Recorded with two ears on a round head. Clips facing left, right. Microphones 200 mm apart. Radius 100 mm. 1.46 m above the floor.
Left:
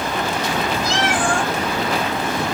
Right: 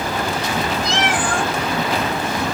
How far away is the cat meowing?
About 1.1 m.